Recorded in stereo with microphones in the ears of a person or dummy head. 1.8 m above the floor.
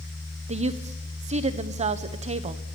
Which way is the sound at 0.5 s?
35° right (ahead or behind).